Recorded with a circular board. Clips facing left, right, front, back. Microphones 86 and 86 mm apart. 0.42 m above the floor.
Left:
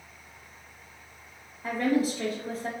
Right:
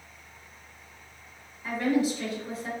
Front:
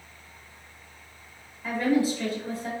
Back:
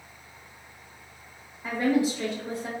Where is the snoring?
I don't hear snoring.